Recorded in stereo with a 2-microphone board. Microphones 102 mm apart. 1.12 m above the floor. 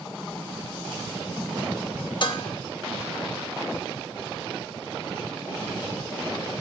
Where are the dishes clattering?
50° left (ahead or behind), 1.0 m.